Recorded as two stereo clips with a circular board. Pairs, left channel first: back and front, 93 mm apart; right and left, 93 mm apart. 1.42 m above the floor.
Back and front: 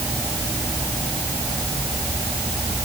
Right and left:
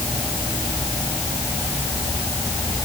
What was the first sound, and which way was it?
Only background noise.